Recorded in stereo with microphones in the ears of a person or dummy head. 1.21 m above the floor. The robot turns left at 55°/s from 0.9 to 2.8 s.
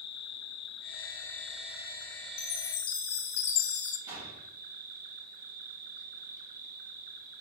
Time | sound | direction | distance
0.0 | an insect | 35° left | 1.6 m
2.4 | a chime | 65° left (ahead or behind) | 1.9 m
4.1 | a gunshot | 15° right (ahead or behind) | 5 m